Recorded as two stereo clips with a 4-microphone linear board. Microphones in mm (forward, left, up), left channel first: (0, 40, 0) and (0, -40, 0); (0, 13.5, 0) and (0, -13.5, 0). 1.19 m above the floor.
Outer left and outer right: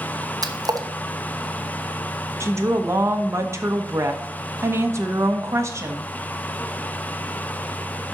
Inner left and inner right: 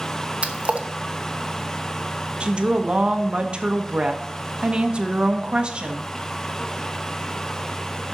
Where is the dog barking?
I don't hear a dog barking.